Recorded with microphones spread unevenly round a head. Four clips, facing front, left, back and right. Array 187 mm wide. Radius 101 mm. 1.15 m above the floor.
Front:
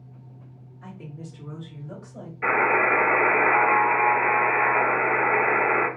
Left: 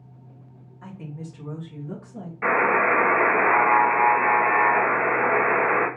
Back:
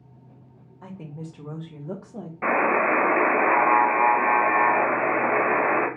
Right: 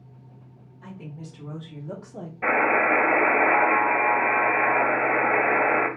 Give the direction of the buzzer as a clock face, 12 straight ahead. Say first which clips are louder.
Left 1 dB, even; 6 o'clock.